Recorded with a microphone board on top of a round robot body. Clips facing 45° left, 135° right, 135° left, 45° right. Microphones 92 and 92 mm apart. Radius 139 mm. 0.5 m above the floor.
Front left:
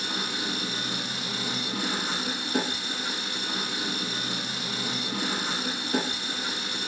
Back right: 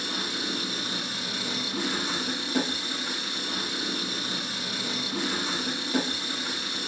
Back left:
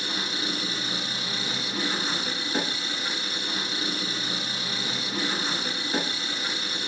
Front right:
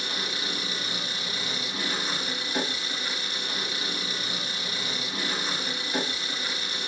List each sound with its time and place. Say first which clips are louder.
0.0 s an engine running: front left 1 dB, back left 2 dB; 75° left, 4 m